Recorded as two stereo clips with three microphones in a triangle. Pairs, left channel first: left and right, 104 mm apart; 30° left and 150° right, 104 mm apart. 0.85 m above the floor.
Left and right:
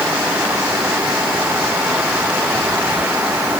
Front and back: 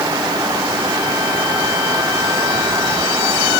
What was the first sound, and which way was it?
Only background noise.